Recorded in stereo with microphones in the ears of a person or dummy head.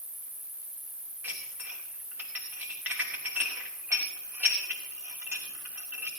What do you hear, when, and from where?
0.0 s an insect: 50° right (ahead or behind), 1.9 m
1.2 s dishes clattering: 5° right (ahead or behind), 3 m